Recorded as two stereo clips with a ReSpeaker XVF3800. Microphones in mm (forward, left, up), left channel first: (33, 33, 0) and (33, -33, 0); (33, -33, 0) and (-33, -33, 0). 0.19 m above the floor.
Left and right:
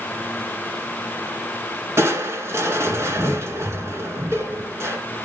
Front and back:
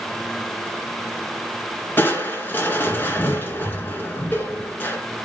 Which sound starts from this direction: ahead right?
Crushing, at 2.0 s.